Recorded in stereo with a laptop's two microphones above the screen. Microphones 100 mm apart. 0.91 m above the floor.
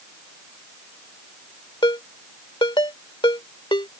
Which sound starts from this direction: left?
A ringtone, at 1.8 s.